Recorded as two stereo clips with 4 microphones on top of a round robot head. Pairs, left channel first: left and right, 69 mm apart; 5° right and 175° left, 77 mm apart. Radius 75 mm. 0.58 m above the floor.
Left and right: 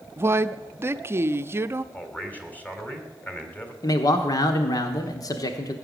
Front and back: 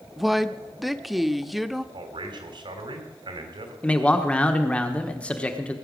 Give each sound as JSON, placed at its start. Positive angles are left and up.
{"t": 0.2, "sound": "a woman speaking", "azimuth_deg": -95, "distance_m": 0.8}
{"t": 1.9, "sound": "a man speaking", "azimuth_deg": 160, "distance_m": 3.0}
{"t": 3.8, "sound": "a man speaking", "azimuth_deg": 70, "distance_m": 1.3}